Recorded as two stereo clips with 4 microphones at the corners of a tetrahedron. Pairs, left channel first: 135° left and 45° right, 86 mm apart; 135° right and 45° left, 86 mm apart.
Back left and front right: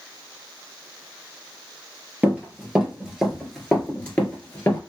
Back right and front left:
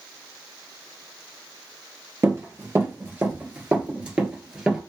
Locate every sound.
2.2 s running footsteps: 20° left, 1.8 m; by 4.8 s 125° left, 1.6 m